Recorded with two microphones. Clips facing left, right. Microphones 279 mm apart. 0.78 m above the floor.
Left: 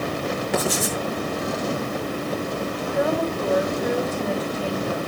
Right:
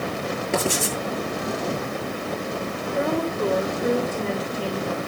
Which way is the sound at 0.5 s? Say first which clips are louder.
Right 1 dB; 30° right (ahead or behind).